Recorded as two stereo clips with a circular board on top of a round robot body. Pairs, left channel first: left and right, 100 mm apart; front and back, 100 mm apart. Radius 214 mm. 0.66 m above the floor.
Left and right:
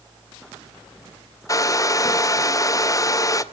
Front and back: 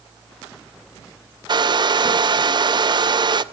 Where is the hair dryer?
145° left, 0.8 m.